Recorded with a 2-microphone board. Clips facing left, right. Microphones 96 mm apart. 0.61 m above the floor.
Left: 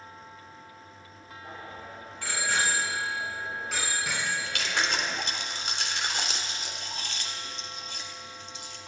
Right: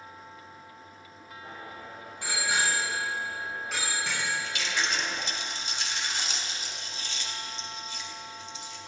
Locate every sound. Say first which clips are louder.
1.4 s a bicycle bell: left 1 dB; 25° right (ahead or behind), 6 m; by 5.2 s 20° left (ahead or behind), 4.5 m
4.2 s chewing: even; 60° left (ahead or behind), 1.7 m